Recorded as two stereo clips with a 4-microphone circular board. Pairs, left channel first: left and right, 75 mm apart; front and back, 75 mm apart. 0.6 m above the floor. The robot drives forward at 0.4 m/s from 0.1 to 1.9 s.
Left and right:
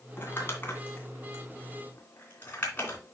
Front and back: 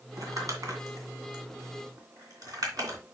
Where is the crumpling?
145° left, 2 m; by 3.0 s 150° left, 2.5 m.